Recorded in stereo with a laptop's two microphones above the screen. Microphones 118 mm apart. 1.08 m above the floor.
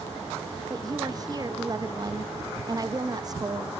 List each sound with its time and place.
0.7 s a woman speaking: 35° right (ahead or behind), 1.2 m